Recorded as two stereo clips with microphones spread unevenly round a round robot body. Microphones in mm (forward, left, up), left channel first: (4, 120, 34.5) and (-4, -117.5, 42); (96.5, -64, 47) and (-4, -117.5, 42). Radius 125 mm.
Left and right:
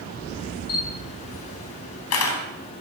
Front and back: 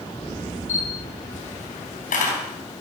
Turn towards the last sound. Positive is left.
turn(degrees=60)